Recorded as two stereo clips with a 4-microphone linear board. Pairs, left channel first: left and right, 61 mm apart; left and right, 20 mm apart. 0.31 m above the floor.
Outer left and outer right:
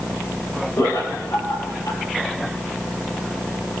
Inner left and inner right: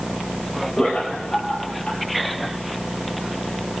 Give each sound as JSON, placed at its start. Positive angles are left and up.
{"t": 0.8, "sound": "laughter", "side_deg": 75, "distance_m": 5.5}